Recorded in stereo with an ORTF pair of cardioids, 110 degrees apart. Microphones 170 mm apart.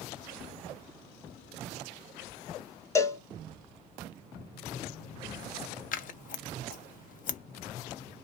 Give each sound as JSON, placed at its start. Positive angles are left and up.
{"t": 3.0, "sound": "a cowbell", "azimuth_deg": 20, "distance_m": 0.5}
{"t": 5.9, "sound": "scissors", "azimuth_deg": 55, "distance_m": 0.6}